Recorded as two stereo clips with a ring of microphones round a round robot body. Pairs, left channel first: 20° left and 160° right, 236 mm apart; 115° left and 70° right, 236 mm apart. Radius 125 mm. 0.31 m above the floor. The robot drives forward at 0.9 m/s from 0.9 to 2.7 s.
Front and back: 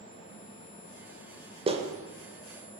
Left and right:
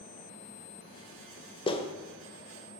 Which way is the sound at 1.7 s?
160° left.